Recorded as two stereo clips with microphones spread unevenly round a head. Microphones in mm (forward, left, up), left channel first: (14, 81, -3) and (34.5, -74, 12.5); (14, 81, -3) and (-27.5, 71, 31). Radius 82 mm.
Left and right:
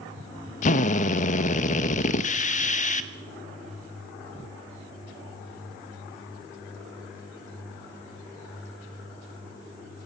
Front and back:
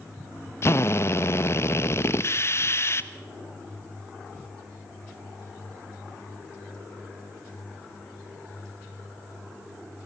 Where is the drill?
55° left, 1.4 m.